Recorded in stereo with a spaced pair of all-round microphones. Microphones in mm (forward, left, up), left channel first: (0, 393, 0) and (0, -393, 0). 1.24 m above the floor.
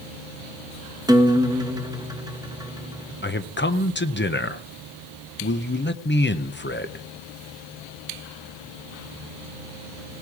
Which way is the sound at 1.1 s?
5° right (ahead or behind).